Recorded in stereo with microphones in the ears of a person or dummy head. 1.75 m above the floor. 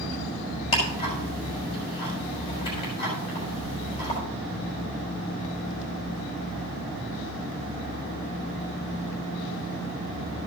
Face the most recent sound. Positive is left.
turn(degrees=25)  # may be behind; listen again after turning